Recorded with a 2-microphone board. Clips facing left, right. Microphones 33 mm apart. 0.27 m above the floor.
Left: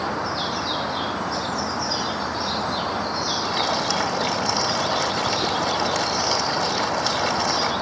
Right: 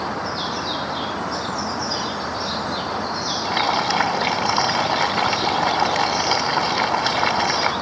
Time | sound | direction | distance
3.5 | boiling | 25° right (ahead or behind) | 1.1 m